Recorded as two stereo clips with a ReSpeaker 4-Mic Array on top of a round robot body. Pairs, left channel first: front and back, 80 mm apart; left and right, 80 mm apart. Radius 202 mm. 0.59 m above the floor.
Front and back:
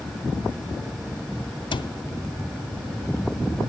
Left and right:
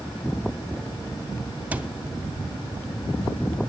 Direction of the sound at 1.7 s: 20° right.